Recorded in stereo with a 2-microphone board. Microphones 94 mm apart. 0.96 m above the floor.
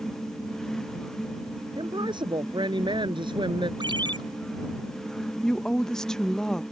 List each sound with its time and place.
1.8 s a woman speaking: 55° right (ahead or behind); by 3.7 s 60° right (ahead or behind)
3.8 s a ringtone: 55° right (ahead or behind)
5.4 s a woman speaking: 5° left (ahead or behind)